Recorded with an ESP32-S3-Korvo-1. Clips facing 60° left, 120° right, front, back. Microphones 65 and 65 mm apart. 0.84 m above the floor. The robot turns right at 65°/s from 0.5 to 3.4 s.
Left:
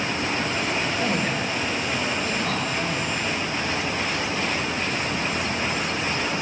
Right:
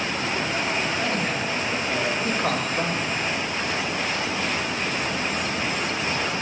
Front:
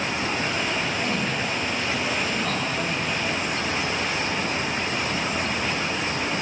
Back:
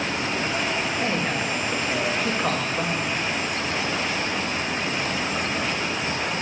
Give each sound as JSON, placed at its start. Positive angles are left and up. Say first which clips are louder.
{"t": 1.0, "sound": "a man speaking", "louder": "left 1 dB, back 1 dB", "azimuth_deg": 125, "distance_m": 2.0}